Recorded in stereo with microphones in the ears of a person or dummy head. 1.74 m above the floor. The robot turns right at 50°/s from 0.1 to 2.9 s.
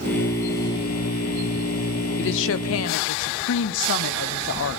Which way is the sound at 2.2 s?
65° left.